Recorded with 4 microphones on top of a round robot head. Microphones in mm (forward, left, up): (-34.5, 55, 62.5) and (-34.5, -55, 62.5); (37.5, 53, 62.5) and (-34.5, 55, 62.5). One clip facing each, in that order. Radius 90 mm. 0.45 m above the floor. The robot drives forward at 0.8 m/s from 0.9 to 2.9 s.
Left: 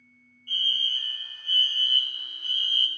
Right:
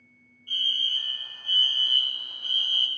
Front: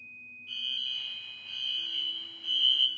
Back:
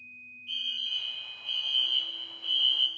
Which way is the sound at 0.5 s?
20° right.